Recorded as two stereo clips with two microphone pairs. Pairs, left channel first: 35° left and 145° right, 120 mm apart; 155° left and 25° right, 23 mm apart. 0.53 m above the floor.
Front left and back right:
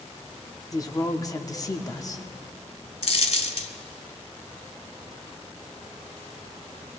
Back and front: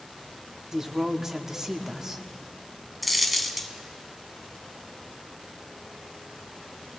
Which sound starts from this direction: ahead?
A woman speaking, at 0.7 s.